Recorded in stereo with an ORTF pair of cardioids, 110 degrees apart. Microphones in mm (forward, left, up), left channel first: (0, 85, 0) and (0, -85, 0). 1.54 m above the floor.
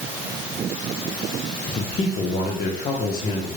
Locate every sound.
1.7 s a man speaking: 30° left, 1.3 m; by 3.5 s 70° left, 2.5 m